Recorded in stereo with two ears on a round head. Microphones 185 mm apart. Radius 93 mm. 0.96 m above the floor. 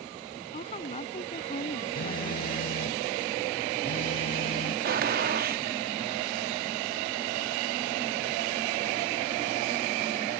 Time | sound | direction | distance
0.5 | a woman speaking | 35° left (ahead or behind) | ?
1.9 | a phone buzzing | 45° left (ahead or behind) | ?
4.8 | a gunshot | 45° right (ahead or behind) | ?